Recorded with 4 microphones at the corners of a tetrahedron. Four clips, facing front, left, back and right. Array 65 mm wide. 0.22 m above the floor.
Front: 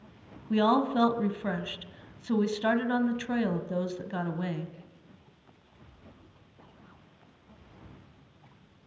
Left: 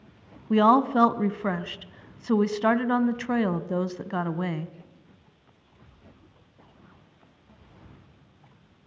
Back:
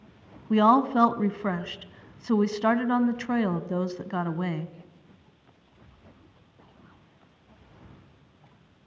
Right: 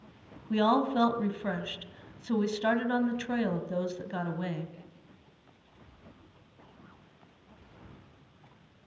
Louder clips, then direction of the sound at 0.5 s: Left 7 dB, back 5 dB; 130° left.